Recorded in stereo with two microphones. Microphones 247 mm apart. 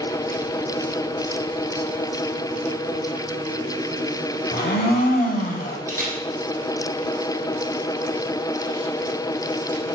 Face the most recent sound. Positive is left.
turn(degrees=-35)  # may be behind; listen again after turning